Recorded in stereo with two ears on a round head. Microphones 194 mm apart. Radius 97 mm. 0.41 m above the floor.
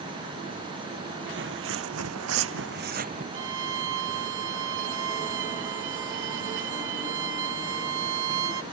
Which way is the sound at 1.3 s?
55° right (ahead or behind).